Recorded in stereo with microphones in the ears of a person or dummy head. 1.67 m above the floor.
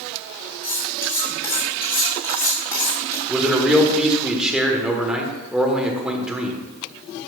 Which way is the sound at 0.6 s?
15° left (ahead or behind).